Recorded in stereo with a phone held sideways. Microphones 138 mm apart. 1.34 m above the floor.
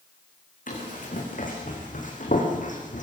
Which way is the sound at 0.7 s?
75° left (ahead or behind).